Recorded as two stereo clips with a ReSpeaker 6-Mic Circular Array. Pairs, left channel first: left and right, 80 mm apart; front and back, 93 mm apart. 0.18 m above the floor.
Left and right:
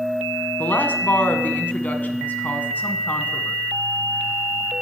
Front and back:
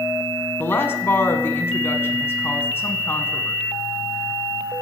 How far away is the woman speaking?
About 1.2 m.